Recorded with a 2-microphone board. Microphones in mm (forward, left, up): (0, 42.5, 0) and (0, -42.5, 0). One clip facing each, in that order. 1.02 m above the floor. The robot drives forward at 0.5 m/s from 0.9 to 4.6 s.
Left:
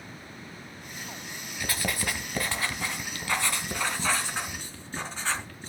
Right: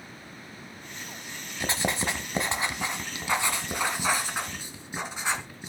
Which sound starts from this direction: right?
Writing, at 1.6 s.